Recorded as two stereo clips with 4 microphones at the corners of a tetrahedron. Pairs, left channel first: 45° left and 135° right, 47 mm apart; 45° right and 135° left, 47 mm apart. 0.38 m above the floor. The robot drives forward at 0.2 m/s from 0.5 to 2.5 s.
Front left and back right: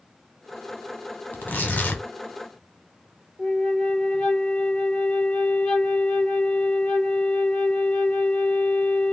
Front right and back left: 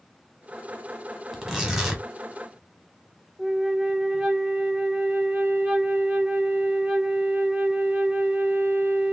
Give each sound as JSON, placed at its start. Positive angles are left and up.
{"t": 1.3, "sound": "tearing paper", "azimuth_deg": 60, "distance_m": 0.9}
{"t": 3.4, "sound": "a flute", "azimuth_deg": 120, "distance_m": 0.7}